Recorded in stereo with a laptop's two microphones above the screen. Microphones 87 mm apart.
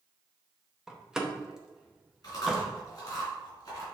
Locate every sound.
0.9 s a door slam: 5° right (ahead or behind), 0.7 m
2.2 s chewing: 45° left (ahead or behind), 3 m